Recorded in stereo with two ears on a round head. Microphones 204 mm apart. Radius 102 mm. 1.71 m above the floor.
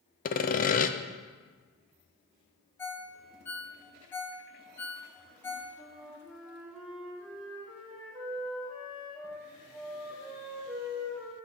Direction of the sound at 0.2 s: 35° left (ahead or behind).